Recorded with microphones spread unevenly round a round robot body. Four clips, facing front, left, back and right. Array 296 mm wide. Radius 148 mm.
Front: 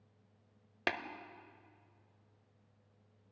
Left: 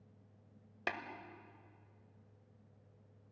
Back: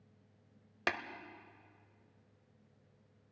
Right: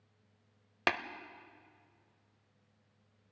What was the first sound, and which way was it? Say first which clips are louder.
Tapping: right 8 dB, even; 110° right.